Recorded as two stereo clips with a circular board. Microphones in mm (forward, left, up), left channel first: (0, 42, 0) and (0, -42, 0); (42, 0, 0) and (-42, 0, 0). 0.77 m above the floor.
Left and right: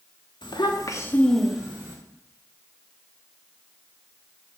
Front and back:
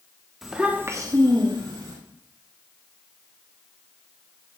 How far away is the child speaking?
About 1.3 m.